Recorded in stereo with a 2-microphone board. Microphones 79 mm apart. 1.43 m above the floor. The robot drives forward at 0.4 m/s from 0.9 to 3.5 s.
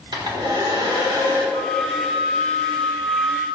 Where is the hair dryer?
85° right, 5 m.